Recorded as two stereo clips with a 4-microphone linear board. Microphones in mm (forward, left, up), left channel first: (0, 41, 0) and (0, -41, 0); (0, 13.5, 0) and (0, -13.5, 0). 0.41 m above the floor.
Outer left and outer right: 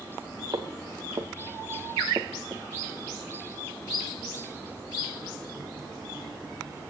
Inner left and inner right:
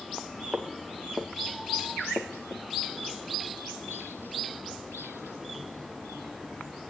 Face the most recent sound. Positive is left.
turn(degrees=-35)  # may be behind; listen again after turning